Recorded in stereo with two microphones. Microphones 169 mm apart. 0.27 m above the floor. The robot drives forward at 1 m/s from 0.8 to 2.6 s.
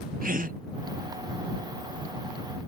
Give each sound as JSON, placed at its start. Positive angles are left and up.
{"t": 0.2, "sound": "a gasp", "side_deg": -55}